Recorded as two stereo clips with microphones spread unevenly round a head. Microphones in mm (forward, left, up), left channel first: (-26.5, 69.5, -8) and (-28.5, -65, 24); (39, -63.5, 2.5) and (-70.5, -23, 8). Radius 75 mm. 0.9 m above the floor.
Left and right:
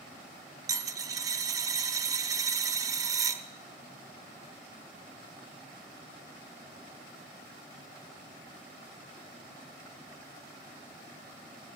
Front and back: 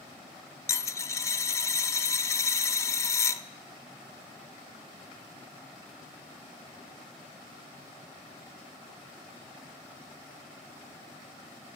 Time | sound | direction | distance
0.7 | a dropped coin | 70° right | 0.6 m